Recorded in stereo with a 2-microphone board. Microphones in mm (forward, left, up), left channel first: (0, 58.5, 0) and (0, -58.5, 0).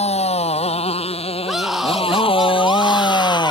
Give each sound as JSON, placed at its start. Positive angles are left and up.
{"t": 0.0, "sound": "a motorcycle", "side_deg": 60}
{"t": 1.4, "sound": "a scream", "side_deg": 0}